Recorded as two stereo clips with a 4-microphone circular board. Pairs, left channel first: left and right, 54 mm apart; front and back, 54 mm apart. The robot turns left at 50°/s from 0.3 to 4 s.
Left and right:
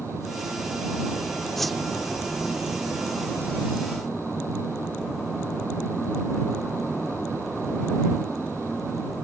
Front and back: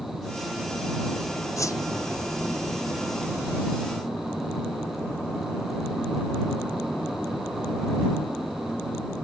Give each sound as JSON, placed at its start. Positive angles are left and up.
{"t": 1.6, "sound": "a whoosh", "azimuth_deg": 5}